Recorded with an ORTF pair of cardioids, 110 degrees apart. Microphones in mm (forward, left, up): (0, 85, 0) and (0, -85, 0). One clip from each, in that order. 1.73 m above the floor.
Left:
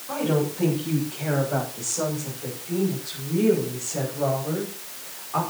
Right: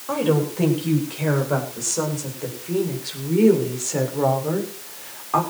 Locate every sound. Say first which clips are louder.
0.1 s a woman speaking: right 4 dB; 60° right, 9.5 m; by 5.4 s 65° right, 7 m